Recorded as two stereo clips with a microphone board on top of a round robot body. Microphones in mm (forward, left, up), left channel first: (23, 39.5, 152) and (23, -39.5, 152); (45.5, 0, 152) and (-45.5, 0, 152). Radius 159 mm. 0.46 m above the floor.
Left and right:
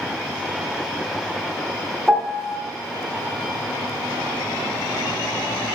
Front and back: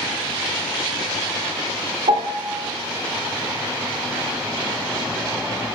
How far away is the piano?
About 0.7 m.